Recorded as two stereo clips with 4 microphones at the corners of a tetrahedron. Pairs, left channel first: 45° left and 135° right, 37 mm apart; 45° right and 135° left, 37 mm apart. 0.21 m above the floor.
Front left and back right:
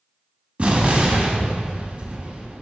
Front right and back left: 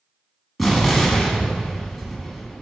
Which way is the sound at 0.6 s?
140° right.